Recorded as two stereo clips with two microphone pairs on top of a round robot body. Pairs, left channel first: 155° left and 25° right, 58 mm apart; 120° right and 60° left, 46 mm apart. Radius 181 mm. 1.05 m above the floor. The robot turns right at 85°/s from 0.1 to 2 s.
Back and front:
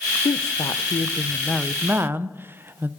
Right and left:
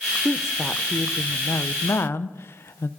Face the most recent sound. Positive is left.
turn(degrees=-80)